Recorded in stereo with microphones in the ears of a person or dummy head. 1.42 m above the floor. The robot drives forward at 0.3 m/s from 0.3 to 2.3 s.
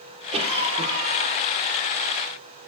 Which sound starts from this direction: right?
A cough, at 0.3 s.